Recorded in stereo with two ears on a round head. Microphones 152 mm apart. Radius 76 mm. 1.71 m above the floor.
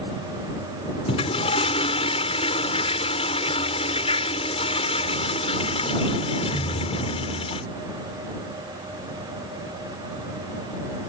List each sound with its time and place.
1.1 s a toilet flushing: 35° left (ahead or behind)